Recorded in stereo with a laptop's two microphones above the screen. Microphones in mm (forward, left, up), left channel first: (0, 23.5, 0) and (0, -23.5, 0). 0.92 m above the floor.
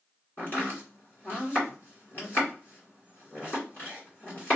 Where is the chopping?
35° left (ahead or behind), 2 m.